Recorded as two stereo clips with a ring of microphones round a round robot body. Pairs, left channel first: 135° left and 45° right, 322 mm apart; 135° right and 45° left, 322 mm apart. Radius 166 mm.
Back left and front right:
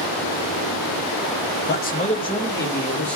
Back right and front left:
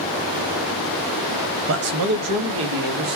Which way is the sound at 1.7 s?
85° left.